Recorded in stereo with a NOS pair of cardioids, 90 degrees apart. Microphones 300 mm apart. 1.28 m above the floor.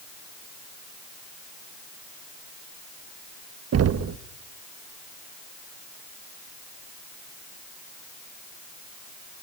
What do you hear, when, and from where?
3.7 s knocking: 55° right, 1.3 m